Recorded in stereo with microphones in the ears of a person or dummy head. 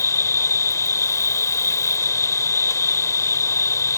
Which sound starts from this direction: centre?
An insect, at 0.0 s.